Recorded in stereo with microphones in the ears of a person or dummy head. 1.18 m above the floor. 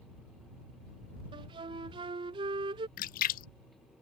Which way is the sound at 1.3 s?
20° right (ahead or behind).